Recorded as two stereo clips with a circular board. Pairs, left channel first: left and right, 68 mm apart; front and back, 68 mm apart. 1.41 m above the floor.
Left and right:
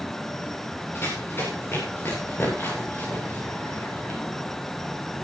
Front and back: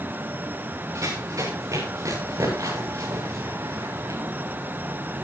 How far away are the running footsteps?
About 7.5 m.